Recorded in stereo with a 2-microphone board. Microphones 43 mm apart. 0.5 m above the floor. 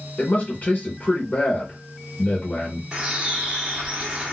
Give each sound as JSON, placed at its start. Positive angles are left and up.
{"t": 0.2, "sound": "a man speaking", "side_deg": 40, "distance_m": 1.5}
{"t": 2.9, "sound": "a bird", "side_deg": -25, "distance_m": 1.0}